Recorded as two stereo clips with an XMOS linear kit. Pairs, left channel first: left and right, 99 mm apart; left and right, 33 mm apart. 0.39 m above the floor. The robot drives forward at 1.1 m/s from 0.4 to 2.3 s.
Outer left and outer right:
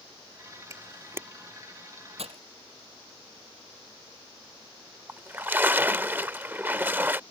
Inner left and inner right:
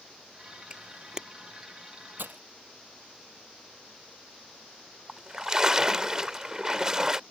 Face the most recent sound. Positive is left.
turn(degrees=-20)  # may be behind; listen again after turning